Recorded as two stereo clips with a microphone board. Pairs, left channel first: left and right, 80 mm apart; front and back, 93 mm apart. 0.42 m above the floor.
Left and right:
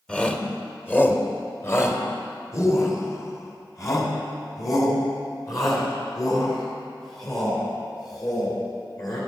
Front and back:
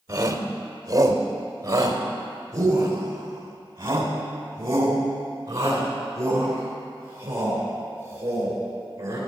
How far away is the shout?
About 1.1 m.